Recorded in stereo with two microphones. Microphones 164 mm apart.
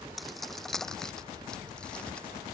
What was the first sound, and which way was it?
Keys jangling, centre (ahead or behind).